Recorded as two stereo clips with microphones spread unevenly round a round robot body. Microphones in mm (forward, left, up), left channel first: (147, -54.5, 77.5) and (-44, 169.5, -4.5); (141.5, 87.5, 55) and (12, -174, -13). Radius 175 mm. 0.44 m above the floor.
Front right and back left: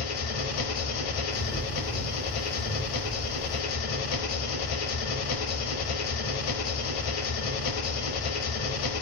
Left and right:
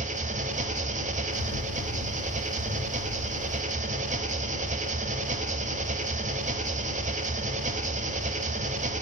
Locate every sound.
0.0 s an engine running: 50° right, 1.0 m
1.3 s a bird: 10° left, 2.5 m